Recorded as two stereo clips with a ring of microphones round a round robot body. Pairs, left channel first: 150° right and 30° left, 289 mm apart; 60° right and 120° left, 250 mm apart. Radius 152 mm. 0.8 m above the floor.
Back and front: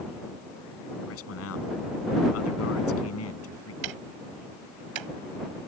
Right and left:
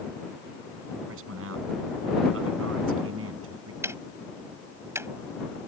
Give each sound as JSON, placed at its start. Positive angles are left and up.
{"t": 1.1, "sound": "a man speaking", "azimuth_deg": 170}
{"t": 3.8, "sound": "ticking", "azimuth_deg": 40}